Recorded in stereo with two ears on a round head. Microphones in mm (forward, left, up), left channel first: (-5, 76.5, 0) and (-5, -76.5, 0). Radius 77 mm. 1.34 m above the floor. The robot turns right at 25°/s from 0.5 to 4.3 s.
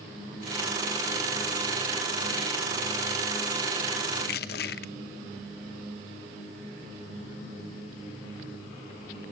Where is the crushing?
65° left (ahead or behind), 0.9 m.